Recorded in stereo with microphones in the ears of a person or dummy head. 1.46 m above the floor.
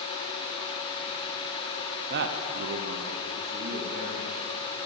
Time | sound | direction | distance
2.1 | a man speaking | 55° right (ahead or behind) | 0.7 m